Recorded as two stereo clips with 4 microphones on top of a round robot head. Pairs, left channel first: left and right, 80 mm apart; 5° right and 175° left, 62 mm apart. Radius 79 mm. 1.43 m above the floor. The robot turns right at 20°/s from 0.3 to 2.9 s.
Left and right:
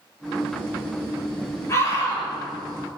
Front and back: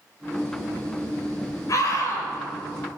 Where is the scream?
30° left, 7 m; by 2.3 s 45° left, 7 m.